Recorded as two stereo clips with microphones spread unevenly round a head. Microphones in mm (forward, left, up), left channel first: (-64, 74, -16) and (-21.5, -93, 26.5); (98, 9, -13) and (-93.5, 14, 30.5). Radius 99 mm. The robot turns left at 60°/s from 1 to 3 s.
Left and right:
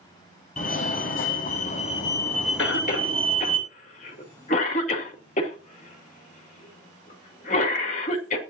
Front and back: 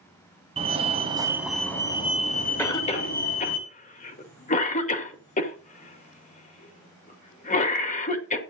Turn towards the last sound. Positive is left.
turn(degrees=50)